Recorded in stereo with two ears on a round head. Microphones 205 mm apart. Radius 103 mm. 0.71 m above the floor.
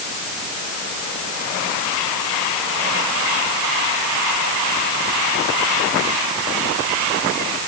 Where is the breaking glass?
I don't hear breaking glass.